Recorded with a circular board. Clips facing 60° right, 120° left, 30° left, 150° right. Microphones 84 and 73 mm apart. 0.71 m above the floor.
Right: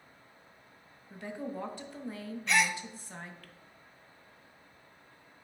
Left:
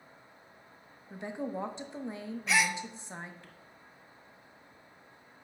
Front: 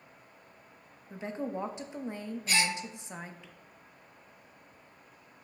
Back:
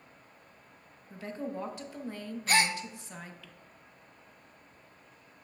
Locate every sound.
1.1 s a woman speaking: 75° left, 0.8 m
2.5 s a gasp: 155° right, 0.5 m